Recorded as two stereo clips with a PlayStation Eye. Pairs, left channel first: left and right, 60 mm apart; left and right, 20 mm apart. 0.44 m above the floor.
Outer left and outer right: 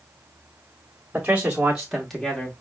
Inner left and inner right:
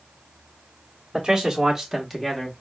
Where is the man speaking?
25° right (ahead or behind), 0.9 m; by 2.6 s 20° left (ahead or behind), 0.9 m.